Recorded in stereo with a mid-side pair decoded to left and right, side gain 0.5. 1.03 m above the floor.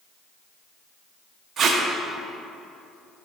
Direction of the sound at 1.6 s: 55° right.